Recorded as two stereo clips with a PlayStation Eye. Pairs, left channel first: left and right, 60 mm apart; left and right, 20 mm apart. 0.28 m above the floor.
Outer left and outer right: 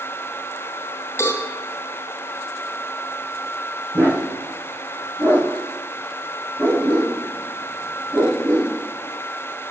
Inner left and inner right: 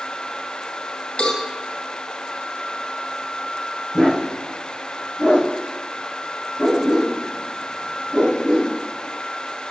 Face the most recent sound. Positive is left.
turn(degrees=-35)  # may be behind; listen again after turning